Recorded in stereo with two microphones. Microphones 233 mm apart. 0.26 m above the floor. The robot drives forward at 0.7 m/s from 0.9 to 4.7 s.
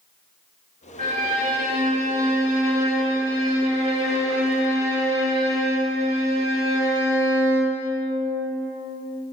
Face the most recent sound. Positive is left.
turn(degrees=-25)  # may be behind; listen again after turning